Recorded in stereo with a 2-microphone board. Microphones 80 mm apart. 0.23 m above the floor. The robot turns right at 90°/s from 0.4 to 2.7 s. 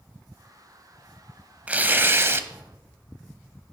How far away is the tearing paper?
About 0.6 m.